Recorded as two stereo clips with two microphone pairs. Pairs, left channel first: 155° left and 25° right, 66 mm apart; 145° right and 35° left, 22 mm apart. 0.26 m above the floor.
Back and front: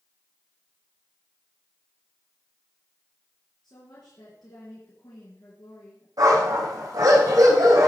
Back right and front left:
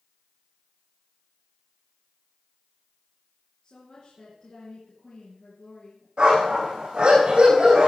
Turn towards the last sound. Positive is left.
turn(degrees=5)